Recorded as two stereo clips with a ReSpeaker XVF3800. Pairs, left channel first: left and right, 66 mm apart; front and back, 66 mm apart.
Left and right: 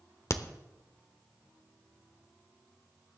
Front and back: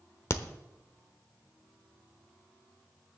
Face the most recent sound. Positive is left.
turn(degrees=45)